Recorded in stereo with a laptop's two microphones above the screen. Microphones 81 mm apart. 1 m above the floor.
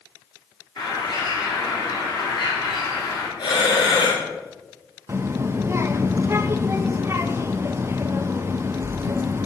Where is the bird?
55° left (ahead or behind), 2.5 m.